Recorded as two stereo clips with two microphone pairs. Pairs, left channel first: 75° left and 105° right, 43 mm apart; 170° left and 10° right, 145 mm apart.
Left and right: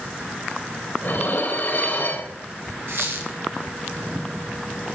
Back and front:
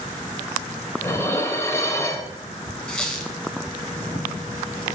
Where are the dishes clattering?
100° left, 1.3 m.